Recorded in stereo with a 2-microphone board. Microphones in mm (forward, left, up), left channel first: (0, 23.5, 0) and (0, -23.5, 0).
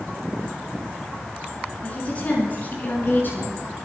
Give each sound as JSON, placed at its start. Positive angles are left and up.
{"t": 1.8, "sound": "a woman speaking", "side_deg": 30, "distance_m": 5.5}